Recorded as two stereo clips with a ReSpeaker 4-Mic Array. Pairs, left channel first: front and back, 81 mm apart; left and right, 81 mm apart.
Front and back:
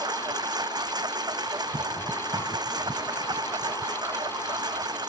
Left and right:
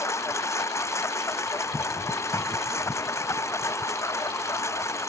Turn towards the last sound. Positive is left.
turn(degrees=145)